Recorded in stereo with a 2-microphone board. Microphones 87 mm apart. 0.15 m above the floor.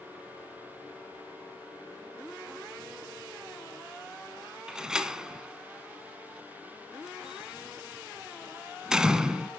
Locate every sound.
4.7 s a door slam: 10° right (ahead or behind), 0.7 m